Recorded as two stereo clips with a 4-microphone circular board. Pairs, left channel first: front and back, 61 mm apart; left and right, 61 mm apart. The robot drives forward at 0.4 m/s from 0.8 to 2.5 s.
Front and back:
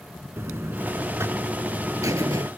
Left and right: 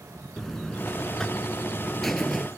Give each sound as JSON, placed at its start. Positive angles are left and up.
{"t": 0.4, "sound": "a buzzer", "azimuth_deg": 170}